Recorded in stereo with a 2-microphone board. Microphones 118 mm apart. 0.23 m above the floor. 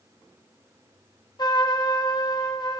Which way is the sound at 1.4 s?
35° left (ahead or behind).